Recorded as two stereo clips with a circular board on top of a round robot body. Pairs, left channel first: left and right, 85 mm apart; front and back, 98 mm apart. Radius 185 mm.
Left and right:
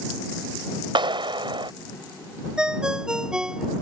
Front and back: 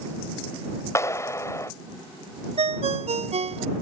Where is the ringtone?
170° right.